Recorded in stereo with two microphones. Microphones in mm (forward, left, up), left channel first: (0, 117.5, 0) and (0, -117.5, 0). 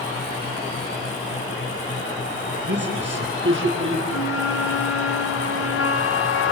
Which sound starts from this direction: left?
A flute, at 4.1 s.